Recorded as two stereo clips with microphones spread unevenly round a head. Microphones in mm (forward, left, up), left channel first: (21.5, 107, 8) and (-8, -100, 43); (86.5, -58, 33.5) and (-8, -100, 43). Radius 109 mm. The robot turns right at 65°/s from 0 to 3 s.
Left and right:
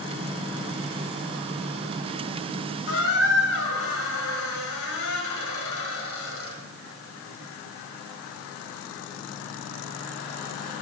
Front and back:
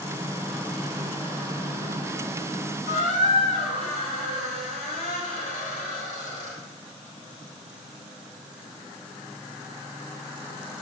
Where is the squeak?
45° left, 1.8 m; by 6.5 s 50° left, 1.8 m.